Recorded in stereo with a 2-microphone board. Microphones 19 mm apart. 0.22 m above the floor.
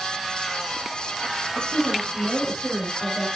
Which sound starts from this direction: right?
A woman speaking, at 1.6 s.